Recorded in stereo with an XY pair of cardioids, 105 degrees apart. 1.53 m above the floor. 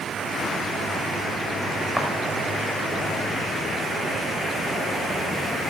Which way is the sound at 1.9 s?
Straight ahead.